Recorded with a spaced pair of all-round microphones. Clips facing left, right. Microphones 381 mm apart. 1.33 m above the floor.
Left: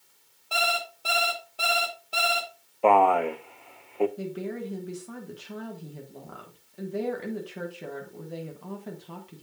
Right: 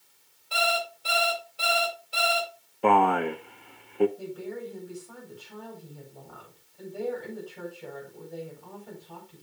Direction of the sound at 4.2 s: 80° left.